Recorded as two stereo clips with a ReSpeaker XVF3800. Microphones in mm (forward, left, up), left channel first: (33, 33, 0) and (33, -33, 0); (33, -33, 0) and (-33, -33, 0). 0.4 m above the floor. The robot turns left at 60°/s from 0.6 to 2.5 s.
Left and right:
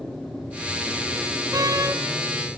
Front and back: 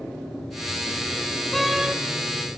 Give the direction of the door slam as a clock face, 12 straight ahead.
3 o'clock.